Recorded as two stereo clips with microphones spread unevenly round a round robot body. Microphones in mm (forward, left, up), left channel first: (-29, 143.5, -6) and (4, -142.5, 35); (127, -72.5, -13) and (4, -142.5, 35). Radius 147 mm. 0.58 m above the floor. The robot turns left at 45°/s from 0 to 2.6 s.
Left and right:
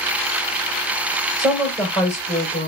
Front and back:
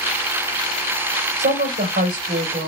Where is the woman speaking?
150° right, 2.5 m; by 2.7 s 155° left, 2.5 m.